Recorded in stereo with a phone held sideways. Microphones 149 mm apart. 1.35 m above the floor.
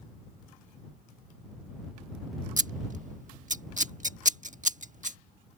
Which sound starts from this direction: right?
Scissors, at 2.6 s.